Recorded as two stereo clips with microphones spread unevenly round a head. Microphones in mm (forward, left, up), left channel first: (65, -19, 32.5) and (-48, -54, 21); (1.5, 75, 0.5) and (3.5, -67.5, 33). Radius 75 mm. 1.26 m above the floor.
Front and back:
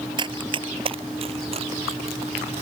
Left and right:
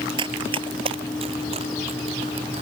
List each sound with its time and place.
0.2 s running footsteps: 120° right; by 2.6 s 130° right